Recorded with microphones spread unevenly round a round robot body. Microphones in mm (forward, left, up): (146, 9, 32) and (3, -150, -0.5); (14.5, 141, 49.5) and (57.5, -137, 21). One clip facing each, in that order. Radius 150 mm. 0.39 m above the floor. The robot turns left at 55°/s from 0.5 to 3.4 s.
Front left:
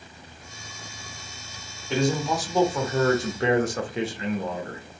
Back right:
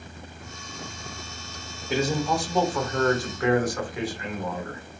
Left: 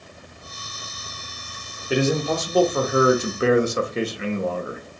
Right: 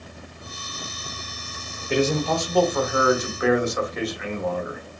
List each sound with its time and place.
1.9 s a man speaking: straight behind, 0.8 m; by 4.8 s 95° left, 0.8 m